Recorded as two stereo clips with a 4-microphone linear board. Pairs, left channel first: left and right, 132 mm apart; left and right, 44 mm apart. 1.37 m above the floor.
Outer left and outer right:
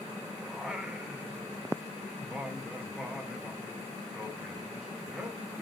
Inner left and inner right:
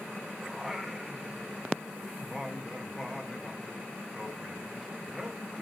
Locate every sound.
0.5 s singing: 5° right (ahead or behind), 0.9 m